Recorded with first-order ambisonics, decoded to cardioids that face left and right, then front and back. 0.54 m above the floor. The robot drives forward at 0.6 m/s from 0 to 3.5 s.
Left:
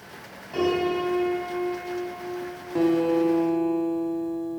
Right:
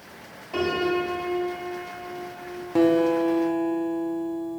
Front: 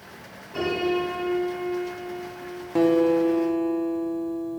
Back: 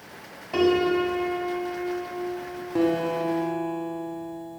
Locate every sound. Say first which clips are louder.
0.5 s a piano: even, back 4 dB; 175° right, 2.0 m
2.8 s a guitar: right 2 dB, front 5 dB; 55° right, 0.6 m; by 4.6 s 150° right, 0.6 m